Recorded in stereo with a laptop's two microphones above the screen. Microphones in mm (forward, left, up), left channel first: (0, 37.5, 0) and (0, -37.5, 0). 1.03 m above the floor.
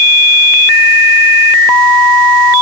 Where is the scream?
No scream in this recording.